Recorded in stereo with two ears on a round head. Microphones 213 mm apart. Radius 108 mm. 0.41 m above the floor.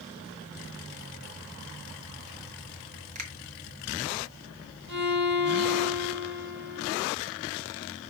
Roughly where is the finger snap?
Right.